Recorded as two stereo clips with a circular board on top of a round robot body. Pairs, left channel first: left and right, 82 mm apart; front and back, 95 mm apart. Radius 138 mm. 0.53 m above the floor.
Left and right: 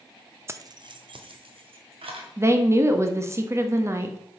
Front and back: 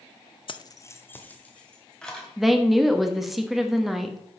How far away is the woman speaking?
About 1.4 m.